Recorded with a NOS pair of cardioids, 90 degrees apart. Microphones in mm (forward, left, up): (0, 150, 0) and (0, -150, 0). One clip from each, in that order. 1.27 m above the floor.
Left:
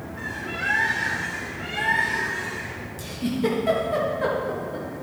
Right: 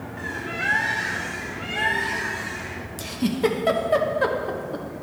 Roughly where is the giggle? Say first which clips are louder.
Right 3 dB; ahead right.